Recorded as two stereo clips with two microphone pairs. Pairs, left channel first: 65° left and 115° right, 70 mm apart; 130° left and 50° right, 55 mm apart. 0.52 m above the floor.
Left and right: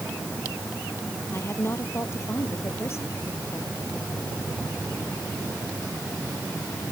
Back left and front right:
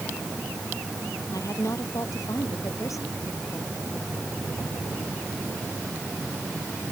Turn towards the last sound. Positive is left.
turn(degrees=115)